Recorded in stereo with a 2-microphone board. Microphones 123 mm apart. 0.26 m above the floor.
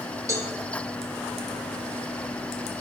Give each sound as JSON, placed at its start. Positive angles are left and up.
{"t": 0.3, "sound": "a cowbell", "side_deg": -25, "distance_m": 1.7}